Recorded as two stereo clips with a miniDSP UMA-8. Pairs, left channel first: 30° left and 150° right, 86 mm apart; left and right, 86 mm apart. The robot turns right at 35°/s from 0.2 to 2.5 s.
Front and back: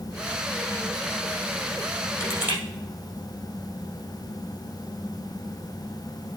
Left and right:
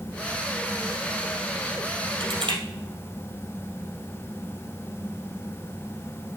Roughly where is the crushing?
Right.